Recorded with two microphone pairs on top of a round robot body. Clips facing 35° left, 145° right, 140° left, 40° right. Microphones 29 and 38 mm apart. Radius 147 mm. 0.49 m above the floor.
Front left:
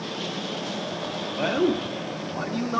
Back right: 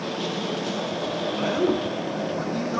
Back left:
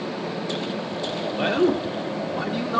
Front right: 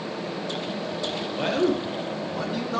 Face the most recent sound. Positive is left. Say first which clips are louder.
# front left 1 dB, back left 3 dB
turn(degrees=80)